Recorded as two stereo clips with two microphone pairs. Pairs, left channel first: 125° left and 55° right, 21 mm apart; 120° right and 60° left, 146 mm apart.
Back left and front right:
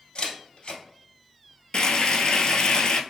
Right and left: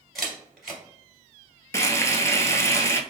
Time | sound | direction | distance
0.1 | a camera shutter | 150° left | 2 m
1.7 | frying | 170° left | 0.6 m